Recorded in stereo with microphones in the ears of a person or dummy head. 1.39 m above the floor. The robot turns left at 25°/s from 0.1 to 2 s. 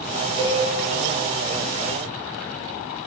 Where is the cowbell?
30° right (ahead or behind), 0.8 m; by 0.6 s 25° right (ahead or behind), 0.8 m.